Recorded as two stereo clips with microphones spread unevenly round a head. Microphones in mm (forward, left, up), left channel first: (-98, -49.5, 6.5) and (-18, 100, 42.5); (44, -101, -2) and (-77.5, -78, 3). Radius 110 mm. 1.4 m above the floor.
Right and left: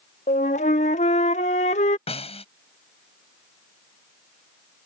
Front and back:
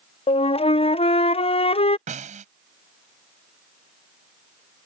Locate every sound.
0.3 s a flute: 55° right
2.1 s a snare drum: 175° right